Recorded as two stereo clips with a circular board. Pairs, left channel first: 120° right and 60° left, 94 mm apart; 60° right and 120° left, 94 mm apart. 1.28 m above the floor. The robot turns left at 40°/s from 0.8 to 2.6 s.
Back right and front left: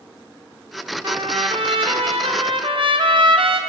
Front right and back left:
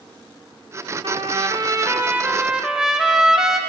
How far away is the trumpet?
About 0.8 m.